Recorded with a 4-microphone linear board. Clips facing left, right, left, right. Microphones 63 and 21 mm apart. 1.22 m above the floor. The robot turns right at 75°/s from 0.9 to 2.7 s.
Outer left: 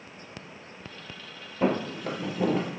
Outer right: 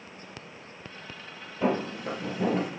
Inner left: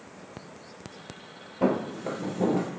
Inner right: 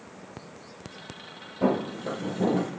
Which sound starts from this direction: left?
Footsteps, at 1.6 s.